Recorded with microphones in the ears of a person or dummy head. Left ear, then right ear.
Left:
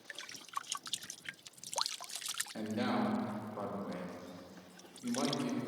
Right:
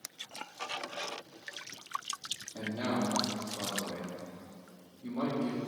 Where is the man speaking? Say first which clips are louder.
Right 2 dB; 65° left (ahead or behind), 1.6 m.